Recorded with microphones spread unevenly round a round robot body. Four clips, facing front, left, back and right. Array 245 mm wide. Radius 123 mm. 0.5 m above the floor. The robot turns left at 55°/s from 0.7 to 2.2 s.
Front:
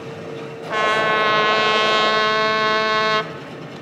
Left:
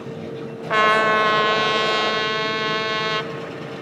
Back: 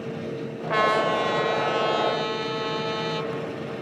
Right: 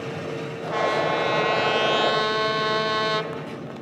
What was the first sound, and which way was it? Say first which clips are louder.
A trumpet: left 6 dB, front 3 dB; 80° left.